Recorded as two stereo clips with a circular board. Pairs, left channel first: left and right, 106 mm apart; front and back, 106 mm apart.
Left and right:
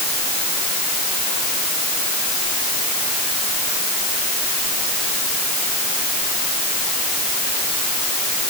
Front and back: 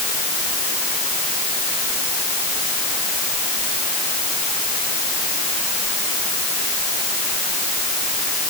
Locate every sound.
Only background noise.